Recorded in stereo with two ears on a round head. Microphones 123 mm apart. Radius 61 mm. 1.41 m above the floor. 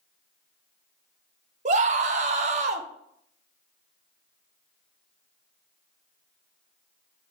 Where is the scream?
55° right (ahead or behind), 0.9 m.